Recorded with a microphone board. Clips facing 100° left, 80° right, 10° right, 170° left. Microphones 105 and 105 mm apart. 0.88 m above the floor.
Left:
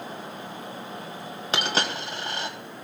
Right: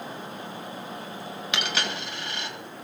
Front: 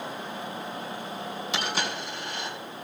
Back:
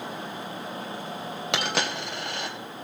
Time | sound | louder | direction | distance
1.5 | a dropped coin | left 4 dB, back 3 dB | 150° left | 2 m